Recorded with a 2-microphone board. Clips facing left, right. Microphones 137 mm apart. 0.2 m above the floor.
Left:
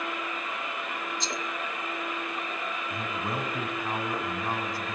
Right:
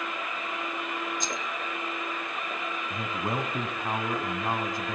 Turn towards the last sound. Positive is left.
turn(degrees=-20)  # may be behind; listen again after turning